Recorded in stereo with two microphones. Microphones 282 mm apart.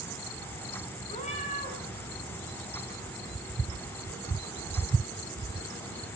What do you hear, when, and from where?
1.1 s a cat meowing: 25° left (ahead or behind), 5.5 m